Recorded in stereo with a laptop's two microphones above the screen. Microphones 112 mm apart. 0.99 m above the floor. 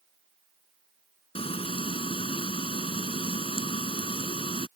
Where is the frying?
60° left (ahead or behind).